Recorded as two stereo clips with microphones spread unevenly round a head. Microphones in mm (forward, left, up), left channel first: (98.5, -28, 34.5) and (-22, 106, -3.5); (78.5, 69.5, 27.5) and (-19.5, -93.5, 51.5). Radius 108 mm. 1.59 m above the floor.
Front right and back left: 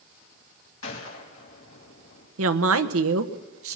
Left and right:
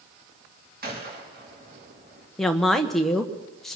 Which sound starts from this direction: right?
A gunshot, at 0.8 s.